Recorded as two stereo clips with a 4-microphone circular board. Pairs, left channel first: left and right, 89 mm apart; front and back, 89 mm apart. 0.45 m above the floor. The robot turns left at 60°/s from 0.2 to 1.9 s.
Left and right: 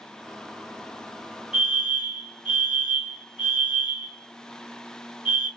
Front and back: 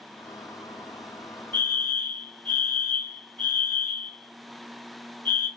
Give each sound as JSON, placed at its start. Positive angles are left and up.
{"t": 1.5, "sound": "a fire alarm", "azimuth_deg": -20, "distance_m": 1.7}